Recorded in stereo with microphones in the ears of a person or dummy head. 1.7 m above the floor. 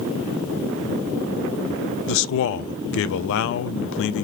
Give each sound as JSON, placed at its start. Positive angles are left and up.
{"t": 2.1, "sound": "a man speaking", "side_deg": 65, "distance_m": 0.5}